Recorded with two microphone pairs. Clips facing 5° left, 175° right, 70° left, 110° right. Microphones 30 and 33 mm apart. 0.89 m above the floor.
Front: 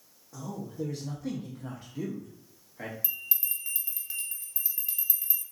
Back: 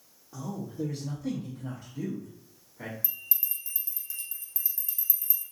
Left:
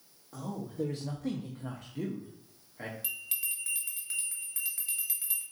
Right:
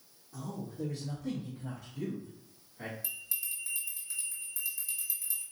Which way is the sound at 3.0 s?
45° left.